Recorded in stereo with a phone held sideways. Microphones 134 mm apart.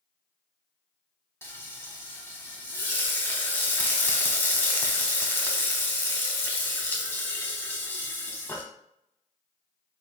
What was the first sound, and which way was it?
Frying, 20° left (ahead or behind).